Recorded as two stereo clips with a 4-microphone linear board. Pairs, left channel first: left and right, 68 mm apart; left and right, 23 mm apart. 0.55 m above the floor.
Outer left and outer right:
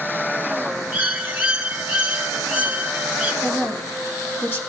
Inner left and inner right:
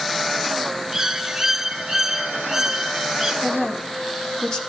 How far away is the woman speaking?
About 1.3 m.